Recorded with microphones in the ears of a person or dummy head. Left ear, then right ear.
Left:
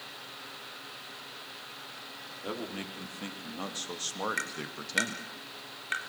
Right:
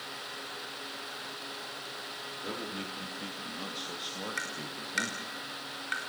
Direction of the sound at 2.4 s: 20° left (ahead or behind).